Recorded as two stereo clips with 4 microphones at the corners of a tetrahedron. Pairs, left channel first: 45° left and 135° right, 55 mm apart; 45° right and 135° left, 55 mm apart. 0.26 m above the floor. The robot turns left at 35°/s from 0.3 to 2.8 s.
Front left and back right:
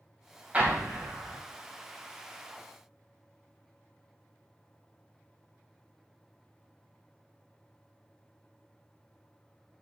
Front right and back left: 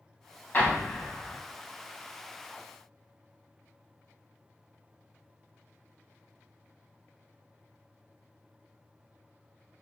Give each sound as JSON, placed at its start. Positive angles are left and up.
{"t": 0.5, "sound": "an explosion", "azimuth_deg": -80, "distance_m": 0.7}